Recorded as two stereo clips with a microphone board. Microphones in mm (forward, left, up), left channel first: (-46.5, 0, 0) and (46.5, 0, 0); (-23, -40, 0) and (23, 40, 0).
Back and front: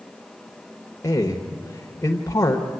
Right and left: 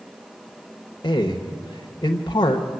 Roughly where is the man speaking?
Behind right.